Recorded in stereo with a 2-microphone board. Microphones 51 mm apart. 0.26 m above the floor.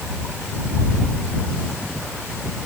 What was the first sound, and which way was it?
Only background noise.